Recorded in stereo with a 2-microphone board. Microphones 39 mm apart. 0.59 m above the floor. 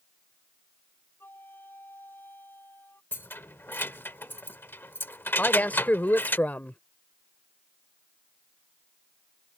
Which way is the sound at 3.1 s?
70° left (ahead or behind).